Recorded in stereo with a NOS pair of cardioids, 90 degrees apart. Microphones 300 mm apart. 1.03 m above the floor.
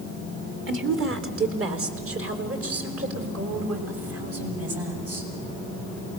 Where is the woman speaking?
40° right, 3 m; by 5.3 s 50° right, 8 m.